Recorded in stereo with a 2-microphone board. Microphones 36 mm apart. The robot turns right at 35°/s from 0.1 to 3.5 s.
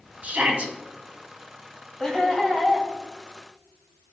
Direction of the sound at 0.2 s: 45° right (ahead or behind).